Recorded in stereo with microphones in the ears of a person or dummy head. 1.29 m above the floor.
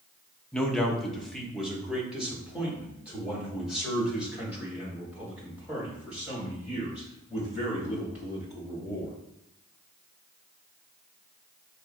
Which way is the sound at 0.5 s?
5° left (ahead or behind).